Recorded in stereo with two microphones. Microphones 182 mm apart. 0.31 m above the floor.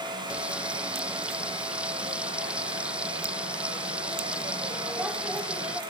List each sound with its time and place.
0.3 s frying: 5° right (ahead or behind)